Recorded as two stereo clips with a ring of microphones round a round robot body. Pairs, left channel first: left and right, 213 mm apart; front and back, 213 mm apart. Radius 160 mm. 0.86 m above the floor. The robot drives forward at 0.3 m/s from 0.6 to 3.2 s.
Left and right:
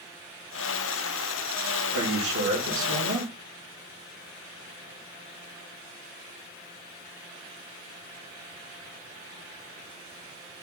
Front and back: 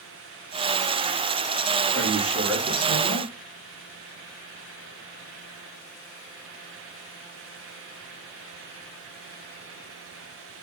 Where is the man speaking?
95° right, 1.7 m; by 3.3 s 110° right, 1.7 m.